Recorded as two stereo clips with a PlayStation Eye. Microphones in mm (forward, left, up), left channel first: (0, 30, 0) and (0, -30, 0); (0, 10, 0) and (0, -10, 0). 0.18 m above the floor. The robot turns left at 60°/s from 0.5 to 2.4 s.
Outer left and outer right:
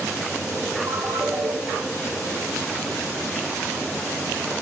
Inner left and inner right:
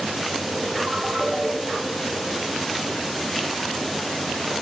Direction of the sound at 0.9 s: 90° right.